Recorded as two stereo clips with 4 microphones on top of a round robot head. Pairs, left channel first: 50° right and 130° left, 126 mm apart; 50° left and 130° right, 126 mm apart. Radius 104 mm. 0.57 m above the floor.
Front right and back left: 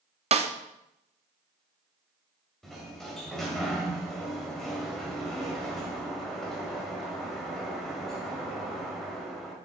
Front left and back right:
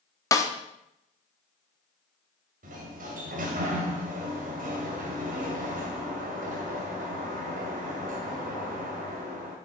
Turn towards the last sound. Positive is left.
turn(degrees=-140)